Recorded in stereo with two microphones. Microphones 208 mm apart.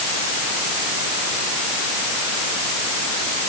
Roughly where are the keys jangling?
I don't hear keys jangling.